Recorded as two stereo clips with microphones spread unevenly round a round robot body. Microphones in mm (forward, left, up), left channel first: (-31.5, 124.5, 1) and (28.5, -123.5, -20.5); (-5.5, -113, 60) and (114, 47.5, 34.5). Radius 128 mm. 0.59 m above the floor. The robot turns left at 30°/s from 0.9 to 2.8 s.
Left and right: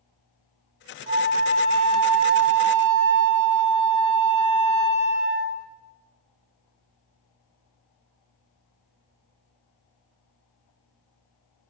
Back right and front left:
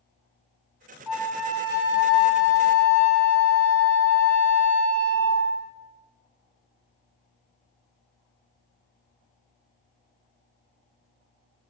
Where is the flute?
35° right, 1.0 m; by 5.7 s 90° right, 1.0 m.